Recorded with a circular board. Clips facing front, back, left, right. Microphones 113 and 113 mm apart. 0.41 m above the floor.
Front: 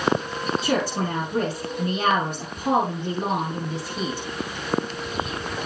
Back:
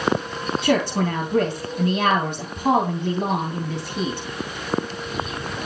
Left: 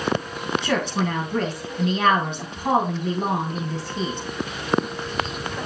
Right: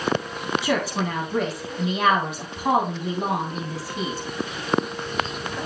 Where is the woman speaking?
170° right, 3 m.